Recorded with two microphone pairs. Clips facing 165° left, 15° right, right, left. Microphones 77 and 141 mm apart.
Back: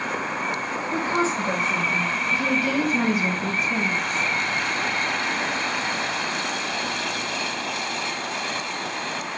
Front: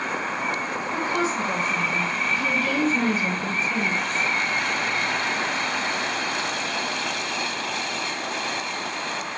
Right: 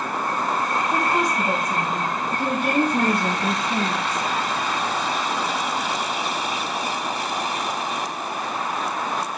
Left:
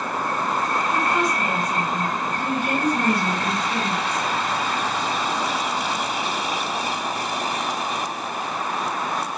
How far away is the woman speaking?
About 5 m.